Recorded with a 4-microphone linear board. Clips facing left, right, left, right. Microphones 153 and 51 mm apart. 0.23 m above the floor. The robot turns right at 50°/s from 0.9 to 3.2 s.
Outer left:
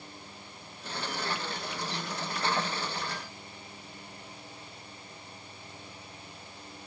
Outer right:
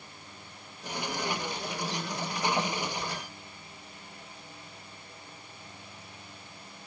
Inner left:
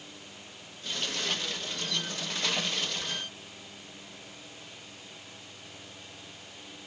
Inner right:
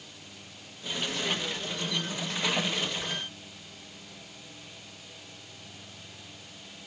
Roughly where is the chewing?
No chewing in this recording.